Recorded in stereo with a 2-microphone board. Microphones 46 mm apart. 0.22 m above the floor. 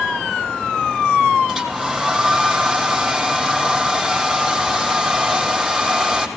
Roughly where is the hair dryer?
Centre.